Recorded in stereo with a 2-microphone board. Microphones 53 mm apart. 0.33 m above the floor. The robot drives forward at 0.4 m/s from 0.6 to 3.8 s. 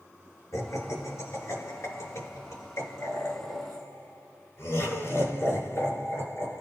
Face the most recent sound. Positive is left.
turn(degrees=65)  # may be behind; listen again after turning